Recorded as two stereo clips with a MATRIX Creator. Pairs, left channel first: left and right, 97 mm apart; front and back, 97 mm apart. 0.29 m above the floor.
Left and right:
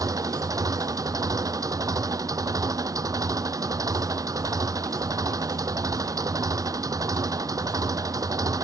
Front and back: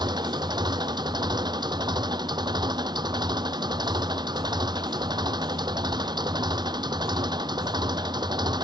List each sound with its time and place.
0.0 s an engine running: 140° right